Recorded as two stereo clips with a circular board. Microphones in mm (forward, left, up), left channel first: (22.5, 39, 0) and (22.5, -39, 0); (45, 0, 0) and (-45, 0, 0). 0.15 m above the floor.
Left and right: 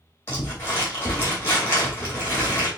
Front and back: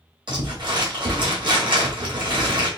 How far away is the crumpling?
About 2.5 m.